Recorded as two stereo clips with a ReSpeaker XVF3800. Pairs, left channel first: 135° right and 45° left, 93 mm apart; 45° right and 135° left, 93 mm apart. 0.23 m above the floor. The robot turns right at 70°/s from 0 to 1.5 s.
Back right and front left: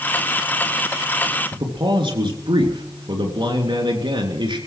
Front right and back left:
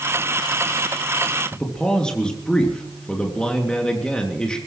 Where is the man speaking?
35° left, 3.5 m.